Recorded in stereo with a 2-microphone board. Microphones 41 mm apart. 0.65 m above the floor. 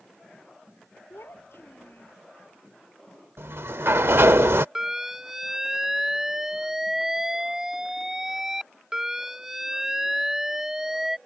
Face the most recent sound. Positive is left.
turn(degrees=-10)  # may be behind; listen again after turning